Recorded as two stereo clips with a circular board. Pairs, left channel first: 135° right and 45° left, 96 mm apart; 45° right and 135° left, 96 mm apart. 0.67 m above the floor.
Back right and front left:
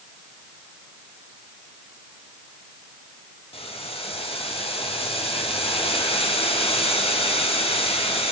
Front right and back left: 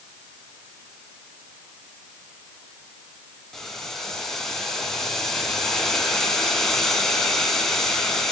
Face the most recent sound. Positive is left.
turn(degrees=-130)